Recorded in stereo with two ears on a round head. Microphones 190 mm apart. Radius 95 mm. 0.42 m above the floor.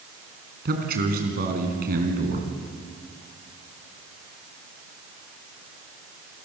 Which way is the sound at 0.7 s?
45° right (ahead or behind).